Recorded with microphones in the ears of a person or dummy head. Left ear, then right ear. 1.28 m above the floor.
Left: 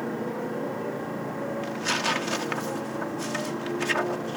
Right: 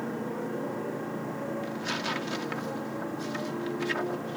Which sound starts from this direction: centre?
A motorcycle, at 0.0 s.